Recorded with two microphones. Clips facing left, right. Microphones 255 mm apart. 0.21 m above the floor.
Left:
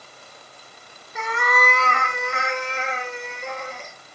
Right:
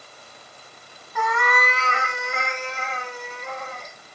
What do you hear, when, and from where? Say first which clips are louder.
1.1 s a cat meowing: even; 25° left (ahead or behind), 1.0 m; by 3.9 s 80° left, 3 m